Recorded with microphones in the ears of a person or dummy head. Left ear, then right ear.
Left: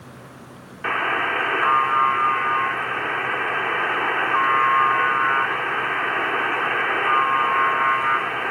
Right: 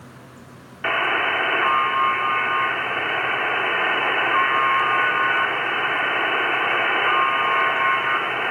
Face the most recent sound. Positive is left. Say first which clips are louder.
# right 1 dB
turn(degrees=-20)  # may be behind; listen again after turning